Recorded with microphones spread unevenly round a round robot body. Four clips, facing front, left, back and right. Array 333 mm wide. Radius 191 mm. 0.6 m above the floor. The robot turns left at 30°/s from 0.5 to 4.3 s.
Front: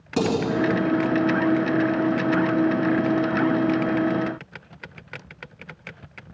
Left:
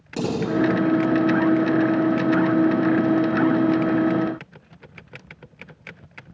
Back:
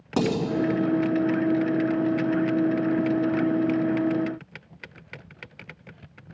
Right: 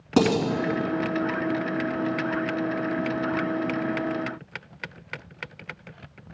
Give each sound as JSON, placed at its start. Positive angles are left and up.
{"t": 0.2, "sound": "dishes clattering", "azimuth_deg": -100, "distance_m": 4.0}